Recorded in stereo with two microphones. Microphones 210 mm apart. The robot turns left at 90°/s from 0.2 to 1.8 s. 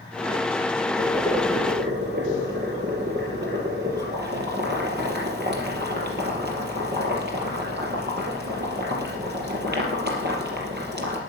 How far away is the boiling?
About 4 m.